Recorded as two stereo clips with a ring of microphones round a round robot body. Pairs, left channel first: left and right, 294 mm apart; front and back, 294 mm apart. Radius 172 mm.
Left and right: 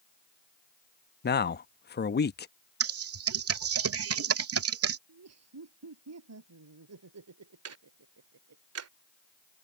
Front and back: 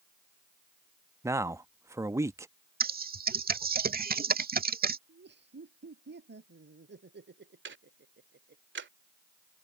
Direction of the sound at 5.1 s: 125° right.